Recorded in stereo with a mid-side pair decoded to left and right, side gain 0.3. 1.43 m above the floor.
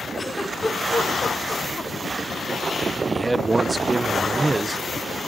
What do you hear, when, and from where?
0.2 s a giggle: 30° left, 4 m
3.1 s a man speaking: 35° right, 0.9 m